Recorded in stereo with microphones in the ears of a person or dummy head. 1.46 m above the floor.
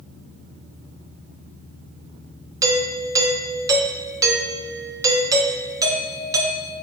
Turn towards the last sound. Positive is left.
turn(degrees=-10)  # may be behind; listen again after turning